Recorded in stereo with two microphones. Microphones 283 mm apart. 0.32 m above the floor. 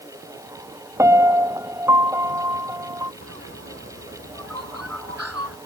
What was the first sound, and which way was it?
A piano, 10° right (ahead or behind).